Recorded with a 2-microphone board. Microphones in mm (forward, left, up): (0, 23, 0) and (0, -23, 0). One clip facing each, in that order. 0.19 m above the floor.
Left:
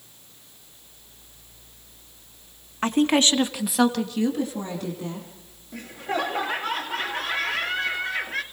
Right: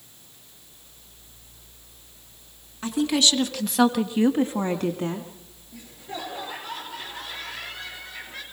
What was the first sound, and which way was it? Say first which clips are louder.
A woman speaking: left 3 dB; 50° left (ahead or behind).